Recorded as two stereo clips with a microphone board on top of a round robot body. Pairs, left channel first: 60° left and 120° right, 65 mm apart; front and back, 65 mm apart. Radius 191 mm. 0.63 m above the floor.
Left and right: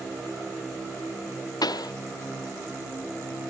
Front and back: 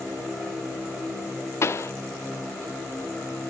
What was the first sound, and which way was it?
A pop, 45° left.